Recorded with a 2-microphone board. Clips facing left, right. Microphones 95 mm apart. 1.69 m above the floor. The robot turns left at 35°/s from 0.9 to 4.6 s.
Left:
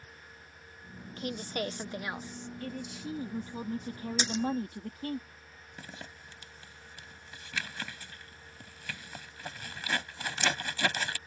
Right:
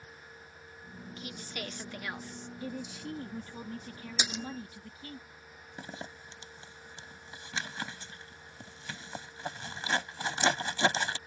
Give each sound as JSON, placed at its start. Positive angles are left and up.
{"t": 1.2, "sound": "a woman speaking", "azimuth_deg": 50}
{"t": 2.6, "sound": "a man speaking", "azimuth_deg": -170}
{"t": 4.2, "sound": "a splash", "side_deg": -10}
{"t": 5.8, "sound": "a zipper", "side_deg": -25}